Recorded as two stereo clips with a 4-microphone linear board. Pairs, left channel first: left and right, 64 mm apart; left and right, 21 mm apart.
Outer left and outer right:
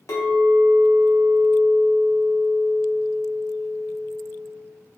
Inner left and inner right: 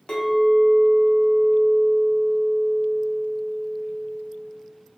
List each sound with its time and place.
0.1 s a clink: 55° left (ahead or behind), 1.3 m